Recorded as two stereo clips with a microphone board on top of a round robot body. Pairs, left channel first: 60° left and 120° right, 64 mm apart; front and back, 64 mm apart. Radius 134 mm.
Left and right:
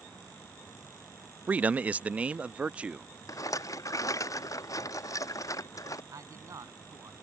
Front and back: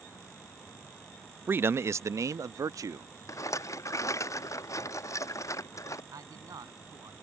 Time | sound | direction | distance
1.5 | a man speaking | 165° right | ?
3.3 | a rattle | 35° left | ?
6.1 | a man speaking | 150° right | ?